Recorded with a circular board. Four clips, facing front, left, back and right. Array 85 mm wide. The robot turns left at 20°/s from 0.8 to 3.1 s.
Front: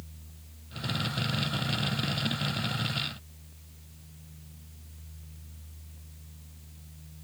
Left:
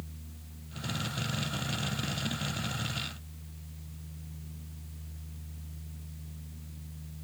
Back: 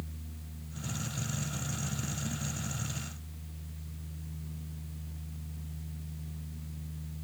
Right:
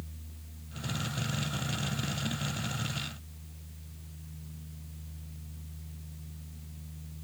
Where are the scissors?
I don't hear scissors.